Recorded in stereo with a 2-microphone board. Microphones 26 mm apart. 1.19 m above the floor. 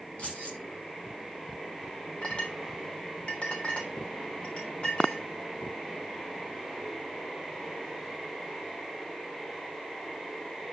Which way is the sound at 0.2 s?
60° left (ahead or behind).